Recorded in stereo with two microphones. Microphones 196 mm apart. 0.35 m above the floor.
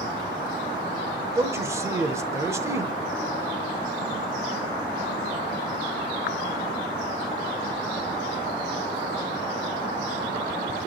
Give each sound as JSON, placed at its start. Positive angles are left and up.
{"t": 1.4, "sound": "a man speaking", "side_deg": -15, "distance_m": 0.9}